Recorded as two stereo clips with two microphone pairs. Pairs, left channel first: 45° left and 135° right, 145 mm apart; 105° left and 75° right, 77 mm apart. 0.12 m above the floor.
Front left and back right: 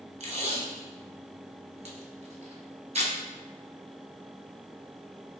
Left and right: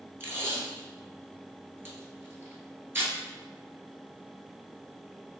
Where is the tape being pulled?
125° right, 0.8 m.